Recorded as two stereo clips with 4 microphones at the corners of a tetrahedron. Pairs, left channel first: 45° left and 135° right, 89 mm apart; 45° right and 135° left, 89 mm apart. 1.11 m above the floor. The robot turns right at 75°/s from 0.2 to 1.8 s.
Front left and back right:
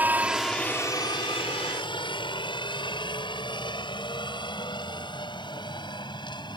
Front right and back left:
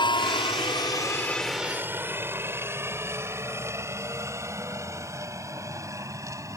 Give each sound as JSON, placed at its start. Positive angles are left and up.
{"t": 0.0, "sound": "a helicopter", "azimuth_deg": -65}